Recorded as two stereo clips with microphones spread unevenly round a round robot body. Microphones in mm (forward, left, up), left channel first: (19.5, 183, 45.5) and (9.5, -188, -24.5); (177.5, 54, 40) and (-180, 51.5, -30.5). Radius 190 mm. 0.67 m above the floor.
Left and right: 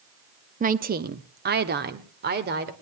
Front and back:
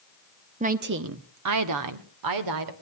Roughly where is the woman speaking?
Behind right.